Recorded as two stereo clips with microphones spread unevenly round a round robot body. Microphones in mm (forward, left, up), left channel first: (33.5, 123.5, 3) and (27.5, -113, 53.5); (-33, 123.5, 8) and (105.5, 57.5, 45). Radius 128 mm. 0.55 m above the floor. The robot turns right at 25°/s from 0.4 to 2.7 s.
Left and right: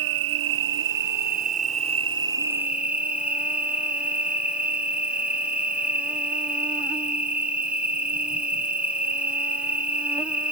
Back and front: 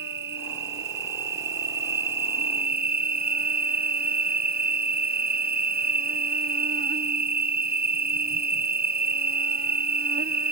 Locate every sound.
0.0 s an insect: 60° right; by 10.5 s straight ahead